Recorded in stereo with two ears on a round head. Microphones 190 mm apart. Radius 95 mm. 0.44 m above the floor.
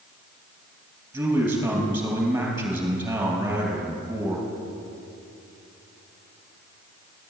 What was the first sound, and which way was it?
A man speaking, 10° right (ahead or behind).